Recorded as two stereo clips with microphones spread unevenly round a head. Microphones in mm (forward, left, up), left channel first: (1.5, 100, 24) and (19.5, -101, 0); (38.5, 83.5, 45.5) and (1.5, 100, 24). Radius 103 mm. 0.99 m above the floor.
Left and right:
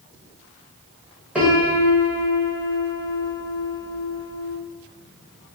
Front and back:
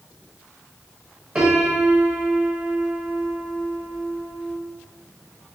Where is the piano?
165° right, 0.9 m.